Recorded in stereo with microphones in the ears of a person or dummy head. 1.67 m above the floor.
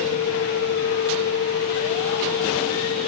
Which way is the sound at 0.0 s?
60° left (ahead or behind).